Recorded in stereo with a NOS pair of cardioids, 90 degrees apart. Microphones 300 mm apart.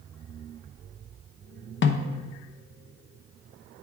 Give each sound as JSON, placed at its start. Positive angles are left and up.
{"t": 1.8, "sound": "a snare drum", "azimuth_deg": 40, "distance_m": 0.7}